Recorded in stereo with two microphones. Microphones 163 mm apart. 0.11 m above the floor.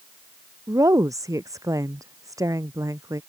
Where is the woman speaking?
20° right (ahead or behind).